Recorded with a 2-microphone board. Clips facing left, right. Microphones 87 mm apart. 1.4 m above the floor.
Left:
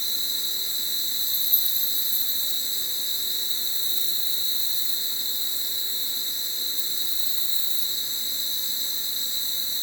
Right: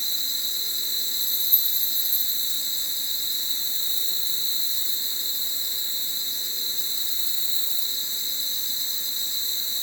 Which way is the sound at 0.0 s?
25° right (ahead or behind).